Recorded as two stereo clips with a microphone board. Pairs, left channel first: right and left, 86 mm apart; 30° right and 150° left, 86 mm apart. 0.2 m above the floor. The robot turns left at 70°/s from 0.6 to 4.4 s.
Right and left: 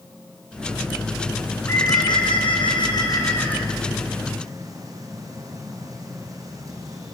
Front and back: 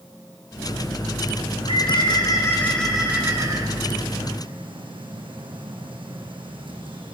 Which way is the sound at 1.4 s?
15° right.